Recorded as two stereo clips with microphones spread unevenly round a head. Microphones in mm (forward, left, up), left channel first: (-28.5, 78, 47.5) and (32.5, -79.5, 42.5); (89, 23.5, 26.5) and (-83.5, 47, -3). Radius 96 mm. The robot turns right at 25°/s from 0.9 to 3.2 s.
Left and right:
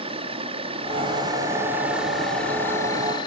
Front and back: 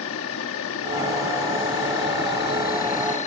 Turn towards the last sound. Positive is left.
turn(degrees=45)